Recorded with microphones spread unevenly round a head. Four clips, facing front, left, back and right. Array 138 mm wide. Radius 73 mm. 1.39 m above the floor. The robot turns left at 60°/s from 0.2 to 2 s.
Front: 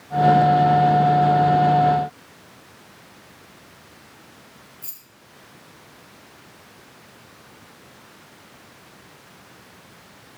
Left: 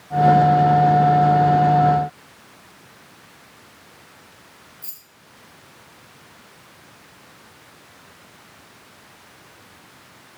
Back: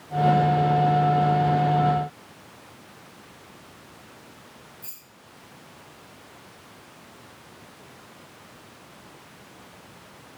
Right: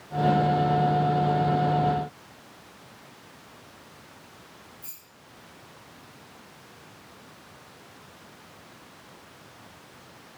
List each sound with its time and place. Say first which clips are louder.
4.8 s keys jangling: left 1 dB, even; 35° left, 0.8 m